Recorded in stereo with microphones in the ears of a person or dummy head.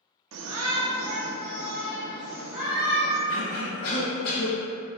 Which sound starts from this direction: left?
A cough, at 3.3 s.